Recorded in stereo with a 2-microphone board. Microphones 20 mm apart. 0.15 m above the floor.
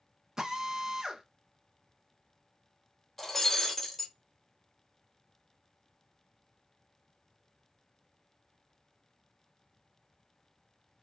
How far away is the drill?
About 0.5 m.